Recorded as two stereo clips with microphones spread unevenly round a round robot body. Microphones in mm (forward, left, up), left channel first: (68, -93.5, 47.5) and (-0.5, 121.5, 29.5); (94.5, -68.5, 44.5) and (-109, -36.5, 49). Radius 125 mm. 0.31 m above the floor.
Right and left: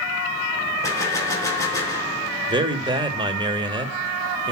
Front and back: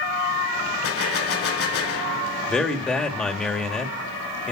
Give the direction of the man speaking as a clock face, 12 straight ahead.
10 o'clock.